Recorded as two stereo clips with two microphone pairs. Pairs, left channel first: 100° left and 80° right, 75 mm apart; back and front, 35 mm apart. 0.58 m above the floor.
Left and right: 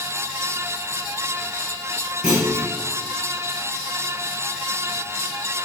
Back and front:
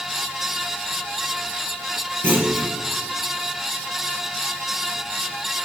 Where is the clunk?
5° right, 5.5 m.